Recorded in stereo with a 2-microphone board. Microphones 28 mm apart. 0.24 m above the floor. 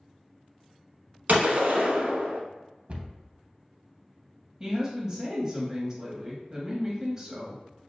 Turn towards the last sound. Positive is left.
turn(degrees=-15)  # may be behind; listen again after turning